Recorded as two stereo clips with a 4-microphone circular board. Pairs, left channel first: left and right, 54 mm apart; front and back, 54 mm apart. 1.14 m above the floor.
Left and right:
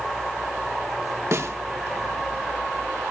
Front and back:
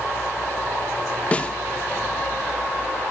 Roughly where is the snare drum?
Ahead right.